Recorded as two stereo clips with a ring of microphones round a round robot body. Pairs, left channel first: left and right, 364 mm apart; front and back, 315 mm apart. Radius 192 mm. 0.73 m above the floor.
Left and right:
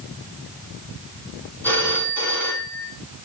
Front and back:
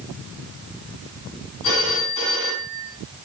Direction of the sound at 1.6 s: 5° left.